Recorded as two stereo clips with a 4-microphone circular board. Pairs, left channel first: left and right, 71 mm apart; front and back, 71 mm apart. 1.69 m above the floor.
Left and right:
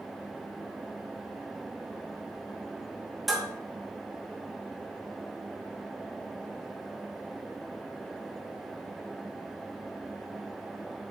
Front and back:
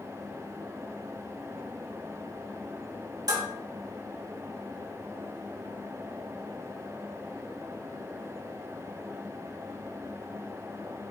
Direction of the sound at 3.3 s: 175° right.